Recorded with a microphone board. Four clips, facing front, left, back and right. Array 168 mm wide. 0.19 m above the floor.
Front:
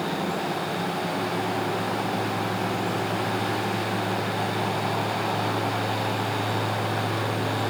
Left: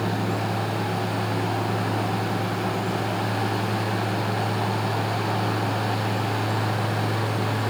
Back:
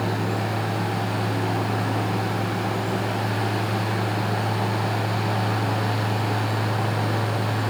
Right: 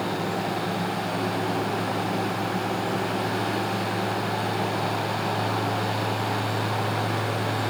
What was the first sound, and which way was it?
Only background noise.